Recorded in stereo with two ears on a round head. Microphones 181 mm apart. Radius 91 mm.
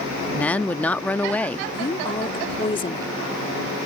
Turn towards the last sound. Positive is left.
turn(degrees=25)  # may be behind; listen again after turning